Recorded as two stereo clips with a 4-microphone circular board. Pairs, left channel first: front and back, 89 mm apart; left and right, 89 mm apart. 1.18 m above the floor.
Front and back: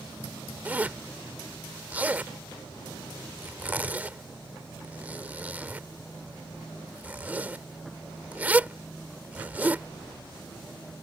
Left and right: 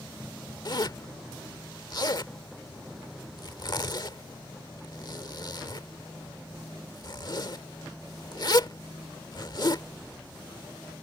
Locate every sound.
0.7 s a zipper: 110° left